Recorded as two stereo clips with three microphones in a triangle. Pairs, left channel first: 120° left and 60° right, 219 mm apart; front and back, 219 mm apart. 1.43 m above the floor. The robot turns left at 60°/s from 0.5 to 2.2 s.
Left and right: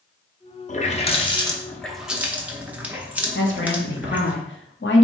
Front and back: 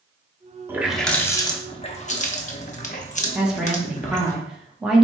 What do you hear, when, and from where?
0.7 s a running tap: 105° left, 0.6 m; by 4.3 s 15° left, 0.6 m
3.4 s a woman speaking: 95° left, 1.1 m